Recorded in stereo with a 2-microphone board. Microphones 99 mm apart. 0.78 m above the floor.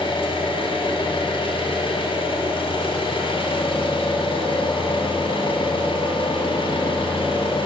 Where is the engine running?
65° left (ahead or behind), 3 m.